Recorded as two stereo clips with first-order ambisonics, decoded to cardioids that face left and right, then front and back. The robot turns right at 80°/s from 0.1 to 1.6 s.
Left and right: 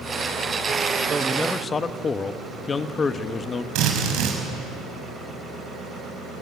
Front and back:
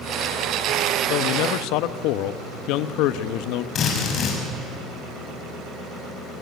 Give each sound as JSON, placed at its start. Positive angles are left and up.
{"t": 1.1, "sound": "a man speaking", "azimuth_deg": -20, "distance_m": 1.1}
{"t": 3.8, "sound": "a drill", "azimuth_deg": -60, "distance_m": 6.0}